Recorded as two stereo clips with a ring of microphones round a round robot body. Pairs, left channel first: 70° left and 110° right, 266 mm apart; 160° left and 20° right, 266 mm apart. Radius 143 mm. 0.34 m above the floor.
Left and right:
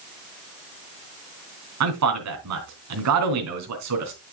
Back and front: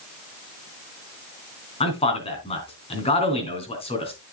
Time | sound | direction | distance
1.8 | a man speaking | 135° right | 3 m